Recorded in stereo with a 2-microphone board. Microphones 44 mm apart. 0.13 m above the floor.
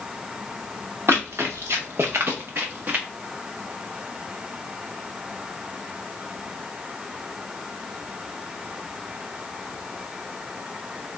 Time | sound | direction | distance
1.1 | running footsteps | 75° right (ahead or behind) | 1.0 m